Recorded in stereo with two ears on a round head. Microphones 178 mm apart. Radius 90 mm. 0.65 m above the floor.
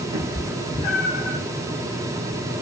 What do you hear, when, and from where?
0.1 s a cat meowing: 30° right (ahead or behind), 0.7 m; by 1.4 s 70° left (ahead or behind), 0.8 m